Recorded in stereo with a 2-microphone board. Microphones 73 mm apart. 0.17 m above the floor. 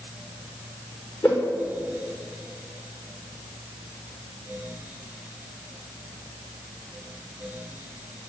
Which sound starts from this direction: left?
A whoosh, at 1.2 s.